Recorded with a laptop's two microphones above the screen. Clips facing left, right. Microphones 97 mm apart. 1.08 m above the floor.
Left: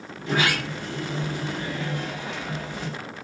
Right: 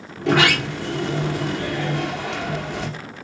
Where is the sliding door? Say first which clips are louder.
Right 7 dB; 80° right, 2 m.